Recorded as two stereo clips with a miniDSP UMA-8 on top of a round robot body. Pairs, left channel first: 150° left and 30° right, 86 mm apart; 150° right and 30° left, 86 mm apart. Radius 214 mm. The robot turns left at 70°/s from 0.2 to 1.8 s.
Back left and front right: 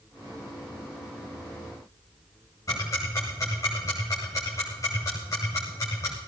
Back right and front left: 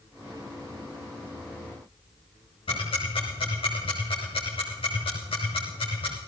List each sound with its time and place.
2.7 s ticking: 155° right, 1.1 m